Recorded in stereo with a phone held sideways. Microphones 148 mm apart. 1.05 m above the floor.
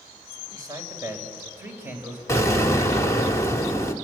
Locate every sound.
0.5 s a man speaking: 25° right (ahead or behind), 4 m; by 3.3 s 5° right (ahead or behind), 5.5 m
2.3 s an explosion: 20° left (ahead or behind), 1.8 m